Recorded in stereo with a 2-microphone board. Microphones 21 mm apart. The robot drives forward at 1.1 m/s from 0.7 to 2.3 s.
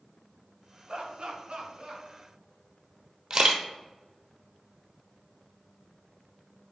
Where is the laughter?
45° right (ahead or behind), 1.9 m.